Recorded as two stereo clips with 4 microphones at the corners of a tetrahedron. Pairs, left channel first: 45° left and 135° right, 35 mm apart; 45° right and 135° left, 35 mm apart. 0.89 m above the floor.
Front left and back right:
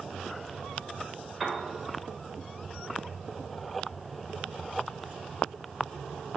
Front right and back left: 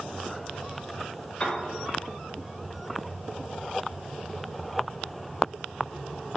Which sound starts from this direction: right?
A piano, at 1.4 s.